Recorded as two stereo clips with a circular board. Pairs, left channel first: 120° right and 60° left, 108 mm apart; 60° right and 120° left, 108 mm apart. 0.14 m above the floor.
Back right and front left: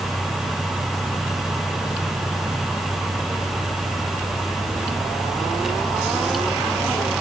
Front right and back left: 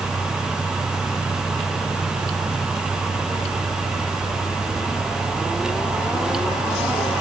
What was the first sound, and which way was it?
Only background noise.